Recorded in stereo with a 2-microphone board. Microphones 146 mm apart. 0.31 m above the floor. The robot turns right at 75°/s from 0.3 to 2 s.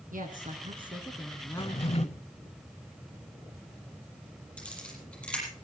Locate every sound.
0.1 s a woman speaking: 75° right, 2.5 m; by 2.2 s 50° left, 2.5 m
1.6 s a drawer: 55° left, 0.6 m; by 2.1 s 90° left, 0.6 m
4.6 s a camera shutter: 10° left (ahead or behind), 7 m